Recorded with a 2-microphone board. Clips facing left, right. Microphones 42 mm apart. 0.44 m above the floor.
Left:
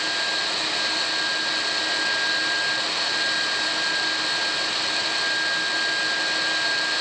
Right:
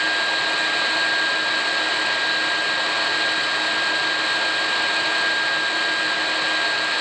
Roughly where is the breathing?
I don't hear breathing.